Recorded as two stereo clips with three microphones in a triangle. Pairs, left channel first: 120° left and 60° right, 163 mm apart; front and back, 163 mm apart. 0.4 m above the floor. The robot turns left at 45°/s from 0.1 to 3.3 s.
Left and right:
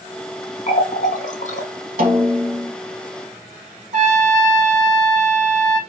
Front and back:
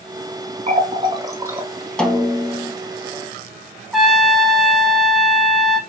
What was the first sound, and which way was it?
A running tap, 145° left.